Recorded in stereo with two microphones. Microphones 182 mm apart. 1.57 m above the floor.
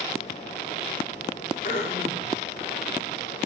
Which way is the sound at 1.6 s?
50° left (ahead or behind).